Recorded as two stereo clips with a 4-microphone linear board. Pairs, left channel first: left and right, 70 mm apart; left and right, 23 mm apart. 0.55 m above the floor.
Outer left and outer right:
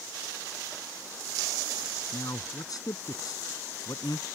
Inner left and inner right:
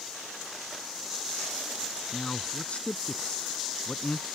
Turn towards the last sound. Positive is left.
turn(degrees=60)  # may be behind; listen again after turning